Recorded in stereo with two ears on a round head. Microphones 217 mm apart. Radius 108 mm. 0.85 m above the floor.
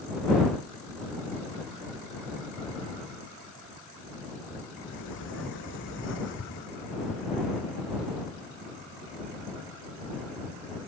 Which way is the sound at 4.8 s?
55° left (ahead or behind).